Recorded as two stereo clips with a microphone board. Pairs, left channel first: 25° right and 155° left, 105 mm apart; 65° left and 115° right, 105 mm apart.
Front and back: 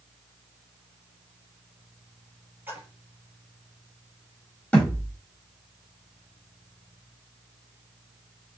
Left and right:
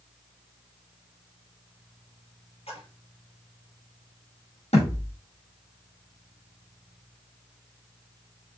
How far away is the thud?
About 5.5 m.